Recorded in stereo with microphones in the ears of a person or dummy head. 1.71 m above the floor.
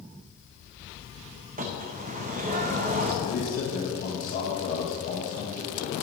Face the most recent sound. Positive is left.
turn(degrees=55)  # may be behind; listen again after turning